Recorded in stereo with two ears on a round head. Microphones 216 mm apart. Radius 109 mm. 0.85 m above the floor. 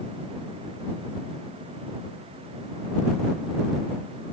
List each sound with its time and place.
Only background noise.